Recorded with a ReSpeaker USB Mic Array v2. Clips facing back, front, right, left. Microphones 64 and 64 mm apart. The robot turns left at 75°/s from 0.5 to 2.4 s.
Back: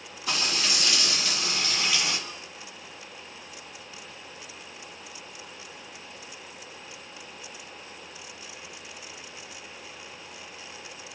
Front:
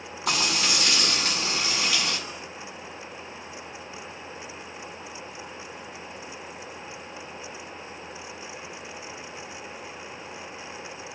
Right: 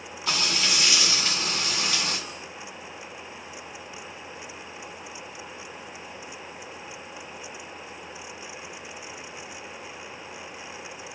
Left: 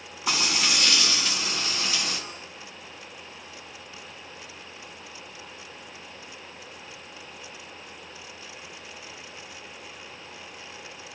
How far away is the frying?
About 7 m.